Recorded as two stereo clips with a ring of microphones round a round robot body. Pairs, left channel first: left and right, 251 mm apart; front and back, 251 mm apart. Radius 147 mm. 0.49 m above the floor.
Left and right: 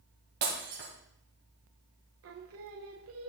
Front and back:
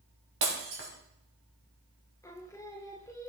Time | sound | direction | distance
0.4 | breaking glass | 145° right | 2.5 m
2.2 | singing | 75° right | 1.0 m